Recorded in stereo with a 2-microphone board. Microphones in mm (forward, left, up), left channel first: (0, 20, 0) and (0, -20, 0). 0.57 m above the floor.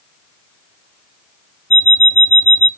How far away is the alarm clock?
About 0.5 m.